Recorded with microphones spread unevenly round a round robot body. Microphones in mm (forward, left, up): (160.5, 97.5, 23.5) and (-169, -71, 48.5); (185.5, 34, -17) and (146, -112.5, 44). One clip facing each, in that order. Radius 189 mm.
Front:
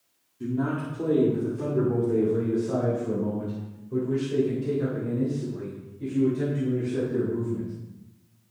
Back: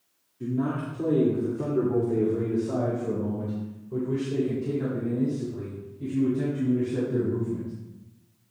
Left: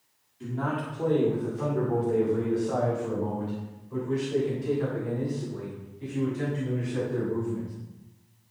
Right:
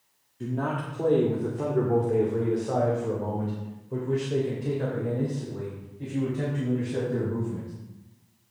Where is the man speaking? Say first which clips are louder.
Even, right 1 dB; 55° right, 2.0 m; by 7.7 s 70° right, 5.5 m.